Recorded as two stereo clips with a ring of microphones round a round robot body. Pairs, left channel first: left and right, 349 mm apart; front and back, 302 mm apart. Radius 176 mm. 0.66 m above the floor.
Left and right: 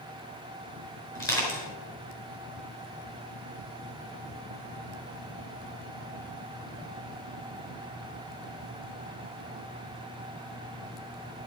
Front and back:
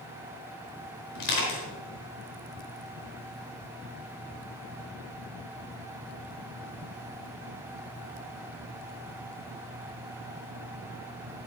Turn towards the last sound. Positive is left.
turn(degrees=10)